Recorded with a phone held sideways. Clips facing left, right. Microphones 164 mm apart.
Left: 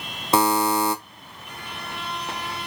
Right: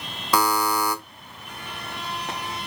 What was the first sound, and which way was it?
A buzzer, 25° left (ahead or behind).